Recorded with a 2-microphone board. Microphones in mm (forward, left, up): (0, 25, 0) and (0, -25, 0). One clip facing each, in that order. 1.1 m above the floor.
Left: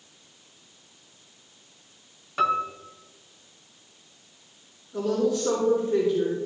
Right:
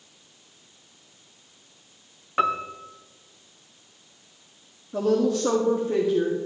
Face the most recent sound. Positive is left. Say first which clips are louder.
# right 3 dB
turn(degrees=-75)  # may be behind; listen again after turning